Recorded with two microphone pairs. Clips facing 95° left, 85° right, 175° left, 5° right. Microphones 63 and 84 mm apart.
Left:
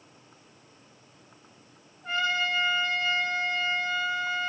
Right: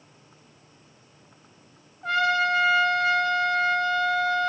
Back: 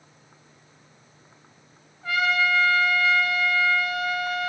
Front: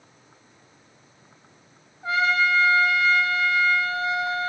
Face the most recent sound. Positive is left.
turn(degrees=-70)